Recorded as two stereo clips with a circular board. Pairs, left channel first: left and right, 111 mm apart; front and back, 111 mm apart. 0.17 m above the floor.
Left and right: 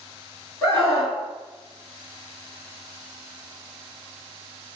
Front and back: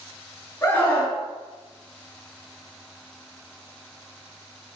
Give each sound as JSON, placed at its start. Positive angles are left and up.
{"t": 0.6, "sound": "a scream", "azimuth_deg": 55, "distance_m": 1.4}